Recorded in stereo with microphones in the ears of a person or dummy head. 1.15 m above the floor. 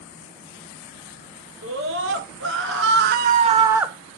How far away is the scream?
About 1.9 m.